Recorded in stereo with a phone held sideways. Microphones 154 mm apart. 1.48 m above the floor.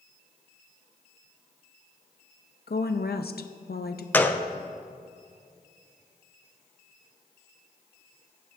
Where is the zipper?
No zipper in this recording.